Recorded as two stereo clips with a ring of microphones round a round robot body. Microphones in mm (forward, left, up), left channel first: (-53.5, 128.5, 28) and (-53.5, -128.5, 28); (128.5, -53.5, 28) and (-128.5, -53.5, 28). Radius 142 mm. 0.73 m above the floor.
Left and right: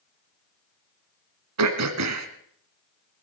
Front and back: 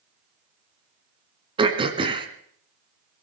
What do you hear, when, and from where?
1.6 s throat clearing: 110° right, 1.5 m